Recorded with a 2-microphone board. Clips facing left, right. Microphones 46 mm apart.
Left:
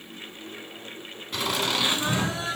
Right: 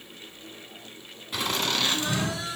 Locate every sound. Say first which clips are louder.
1.3 s laughter: left 1 dB; centre (ahead or behind), 1.4 m; by 2.6 s 40° left (ahead or behind), 1.8 m